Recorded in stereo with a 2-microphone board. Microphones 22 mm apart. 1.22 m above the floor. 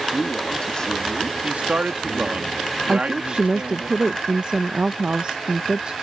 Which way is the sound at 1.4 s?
80° right.